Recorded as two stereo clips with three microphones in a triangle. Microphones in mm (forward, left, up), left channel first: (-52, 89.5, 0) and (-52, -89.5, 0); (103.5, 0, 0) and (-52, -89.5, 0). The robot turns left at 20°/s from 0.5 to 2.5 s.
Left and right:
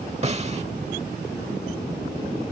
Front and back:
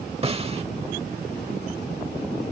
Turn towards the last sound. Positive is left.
turn(degrees=-155)